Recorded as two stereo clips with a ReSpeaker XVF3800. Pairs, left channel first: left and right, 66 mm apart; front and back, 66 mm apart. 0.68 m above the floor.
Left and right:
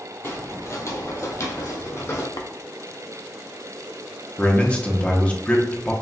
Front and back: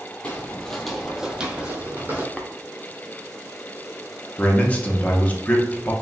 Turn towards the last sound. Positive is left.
turn(degrees=40)